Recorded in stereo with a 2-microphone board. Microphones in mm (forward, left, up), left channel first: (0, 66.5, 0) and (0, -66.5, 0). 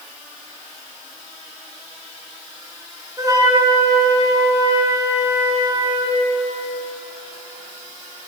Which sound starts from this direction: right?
A flute, at 3.2 s.